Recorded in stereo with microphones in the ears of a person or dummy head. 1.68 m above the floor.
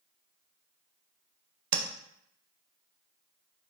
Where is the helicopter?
No helicopter in this recording.